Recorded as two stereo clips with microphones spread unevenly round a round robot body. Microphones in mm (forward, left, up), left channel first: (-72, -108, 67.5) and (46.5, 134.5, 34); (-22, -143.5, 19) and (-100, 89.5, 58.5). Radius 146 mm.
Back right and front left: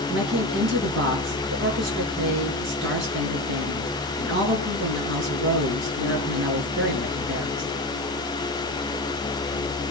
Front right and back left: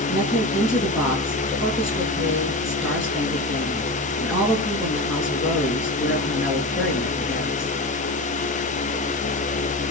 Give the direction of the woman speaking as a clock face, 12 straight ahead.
11 o'clock.